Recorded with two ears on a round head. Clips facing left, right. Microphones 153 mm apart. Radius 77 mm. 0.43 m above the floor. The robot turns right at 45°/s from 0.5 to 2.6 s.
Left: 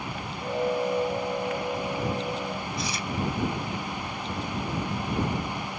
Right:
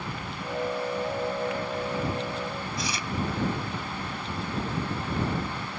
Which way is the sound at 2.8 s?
70° right (ahead or behind).